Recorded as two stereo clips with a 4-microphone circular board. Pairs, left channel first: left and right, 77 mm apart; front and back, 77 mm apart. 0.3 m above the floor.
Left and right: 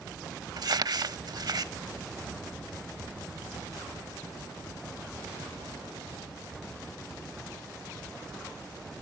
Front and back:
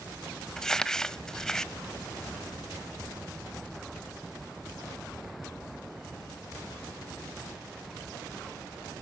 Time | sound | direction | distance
0.6 | crumpling | 80° right | 0.5 m